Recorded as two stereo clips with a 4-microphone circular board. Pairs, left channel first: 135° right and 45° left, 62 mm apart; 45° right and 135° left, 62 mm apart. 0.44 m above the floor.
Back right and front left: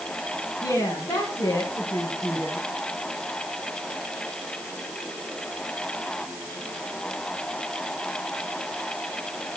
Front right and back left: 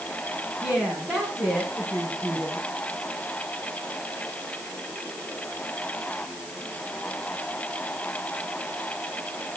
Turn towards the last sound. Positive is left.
turn(degrees=-150)